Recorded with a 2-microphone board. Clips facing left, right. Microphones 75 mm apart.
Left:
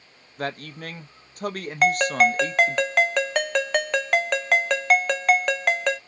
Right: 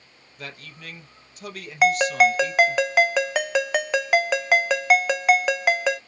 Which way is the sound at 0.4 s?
45° left (ahead or behind).